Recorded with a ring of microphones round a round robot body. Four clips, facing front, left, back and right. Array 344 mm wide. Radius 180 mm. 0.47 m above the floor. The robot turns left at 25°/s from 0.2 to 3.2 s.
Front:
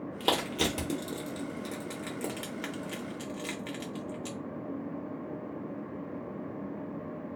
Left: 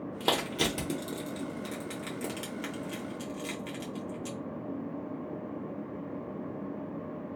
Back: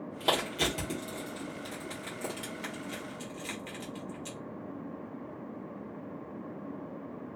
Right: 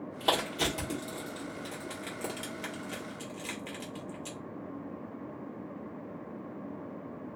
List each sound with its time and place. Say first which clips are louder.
0.2 s crushing: even, front 1 dB; 70° left, 1.3 m; by 4.4 s 5° right, 1.3 m